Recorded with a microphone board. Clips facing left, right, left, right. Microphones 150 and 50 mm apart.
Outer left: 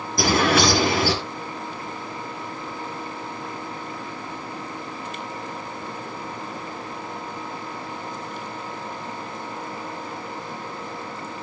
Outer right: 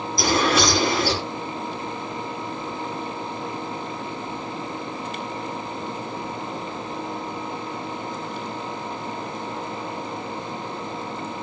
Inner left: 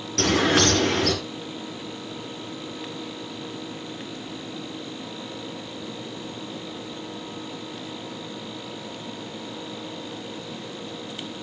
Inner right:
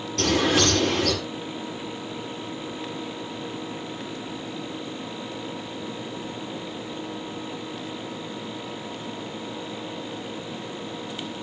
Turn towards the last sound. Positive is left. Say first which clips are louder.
# outer left 1 dB, inner left 1 dB
turn(degrees=60)  # may be behind; listen again after turning